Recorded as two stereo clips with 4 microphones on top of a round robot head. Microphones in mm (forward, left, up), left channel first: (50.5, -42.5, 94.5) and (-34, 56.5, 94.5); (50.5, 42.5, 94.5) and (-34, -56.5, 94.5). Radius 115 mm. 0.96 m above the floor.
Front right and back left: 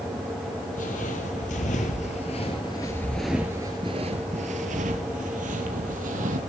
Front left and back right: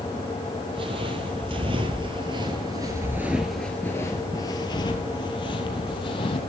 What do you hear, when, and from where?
0.7 s footsteps: 80° right, 1.8 m; by 6.4 s 105° left, 2 m